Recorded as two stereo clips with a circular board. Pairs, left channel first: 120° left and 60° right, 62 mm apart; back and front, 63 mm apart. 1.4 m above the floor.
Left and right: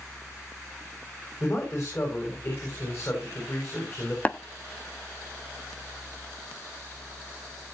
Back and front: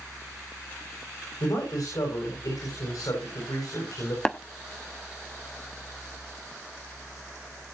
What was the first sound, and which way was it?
A man speaking, 160° left.